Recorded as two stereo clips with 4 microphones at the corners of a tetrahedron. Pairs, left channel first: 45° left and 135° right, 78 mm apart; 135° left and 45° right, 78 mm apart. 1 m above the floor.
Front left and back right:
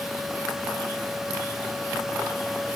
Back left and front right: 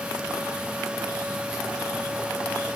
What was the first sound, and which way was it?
Only background noise.